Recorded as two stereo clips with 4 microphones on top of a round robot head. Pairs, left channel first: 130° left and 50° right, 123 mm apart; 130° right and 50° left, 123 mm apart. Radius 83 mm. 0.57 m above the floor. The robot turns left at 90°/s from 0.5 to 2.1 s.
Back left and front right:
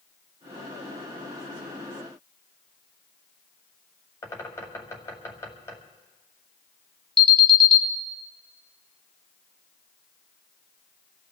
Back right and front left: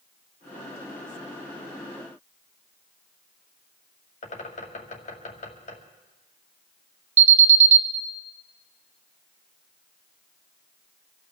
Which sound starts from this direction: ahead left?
An alarm, at 7.2 s.